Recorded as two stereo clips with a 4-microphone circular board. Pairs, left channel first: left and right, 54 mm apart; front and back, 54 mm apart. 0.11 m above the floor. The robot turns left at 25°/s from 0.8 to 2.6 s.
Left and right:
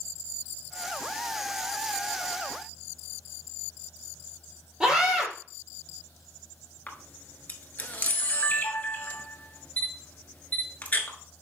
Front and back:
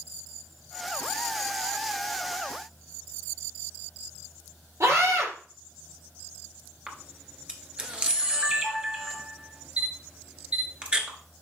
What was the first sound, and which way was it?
A scream, 170° right.